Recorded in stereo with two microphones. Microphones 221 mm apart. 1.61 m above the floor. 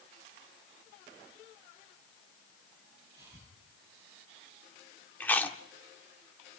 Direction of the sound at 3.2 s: 15° right (ahead or behind).